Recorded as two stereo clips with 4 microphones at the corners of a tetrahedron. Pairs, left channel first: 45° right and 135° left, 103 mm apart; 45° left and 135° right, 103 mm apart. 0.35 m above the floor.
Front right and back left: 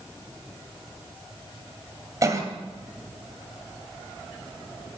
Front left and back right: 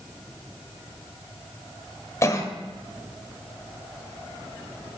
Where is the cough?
95° left, 1.6 m.